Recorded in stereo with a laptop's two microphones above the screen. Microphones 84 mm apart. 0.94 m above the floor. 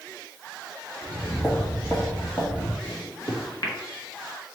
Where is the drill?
No drill in this recording.